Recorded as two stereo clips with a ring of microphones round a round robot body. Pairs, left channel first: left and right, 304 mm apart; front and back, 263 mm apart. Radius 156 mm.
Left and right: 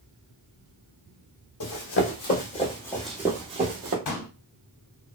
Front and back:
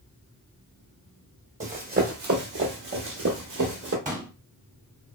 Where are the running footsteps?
120° left, 1.2 m; by 4.0 s 140° right, 1.0 m.